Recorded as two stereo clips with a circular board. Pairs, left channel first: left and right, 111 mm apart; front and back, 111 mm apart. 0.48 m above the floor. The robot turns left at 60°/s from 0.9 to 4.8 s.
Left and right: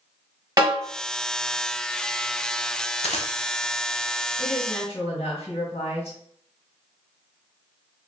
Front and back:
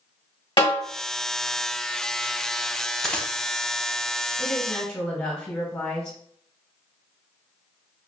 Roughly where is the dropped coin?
Left.